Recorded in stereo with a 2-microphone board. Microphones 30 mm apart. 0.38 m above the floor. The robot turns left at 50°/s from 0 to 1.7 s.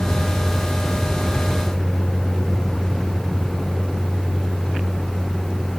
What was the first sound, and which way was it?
A vehicle, 80° left.